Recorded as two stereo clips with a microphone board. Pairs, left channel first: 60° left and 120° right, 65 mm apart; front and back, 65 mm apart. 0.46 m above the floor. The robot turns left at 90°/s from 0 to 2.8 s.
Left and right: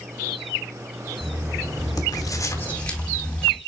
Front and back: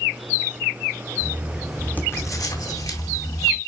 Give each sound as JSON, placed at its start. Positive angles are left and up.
{"t": 1.2, "sound": "writing", "azimuth_deg": 130, "distance_m": 3.0}